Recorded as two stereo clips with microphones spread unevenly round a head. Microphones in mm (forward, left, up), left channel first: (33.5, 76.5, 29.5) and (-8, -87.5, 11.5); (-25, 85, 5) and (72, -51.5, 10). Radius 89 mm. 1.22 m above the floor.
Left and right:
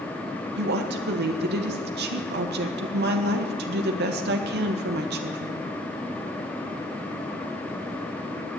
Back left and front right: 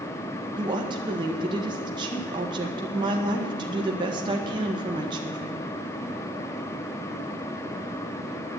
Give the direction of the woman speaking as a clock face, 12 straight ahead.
4 o'clock.